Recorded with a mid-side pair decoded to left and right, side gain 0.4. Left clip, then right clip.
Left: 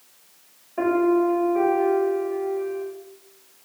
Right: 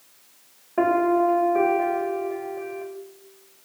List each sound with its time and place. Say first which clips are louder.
0.8 s a piano: right 1 dB; 55° right, 0.9 m